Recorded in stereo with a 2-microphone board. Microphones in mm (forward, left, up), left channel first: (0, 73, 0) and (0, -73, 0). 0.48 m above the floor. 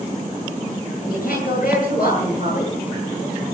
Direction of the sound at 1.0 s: 85° left.